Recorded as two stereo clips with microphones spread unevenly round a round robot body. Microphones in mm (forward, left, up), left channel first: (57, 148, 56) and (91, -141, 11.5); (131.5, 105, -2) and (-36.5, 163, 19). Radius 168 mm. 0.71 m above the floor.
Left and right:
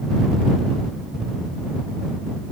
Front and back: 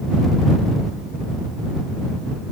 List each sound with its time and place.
Only background noise.